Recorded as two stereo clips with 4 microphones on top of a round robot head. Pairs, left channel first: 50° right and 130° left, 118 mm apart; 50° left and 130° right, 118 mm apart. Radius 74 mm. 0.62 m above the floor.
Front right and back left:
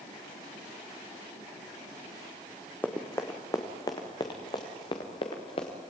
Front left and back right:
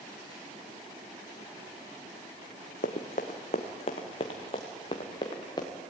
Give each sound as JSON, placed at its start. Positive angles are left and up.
{"t": 2.8, "sound": "running footsteps", "azimuth_deg": 25, "distance_m": 2.0}